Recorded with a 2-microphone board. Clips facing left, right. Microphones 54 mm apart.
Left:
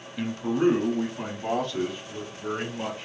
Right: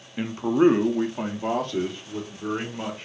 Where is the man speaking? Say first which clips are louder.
Right 5 dB; 20° right (ahead or behind), 0.5 m; by 3.0 s 40° right (ahead or behind), 1.9 m.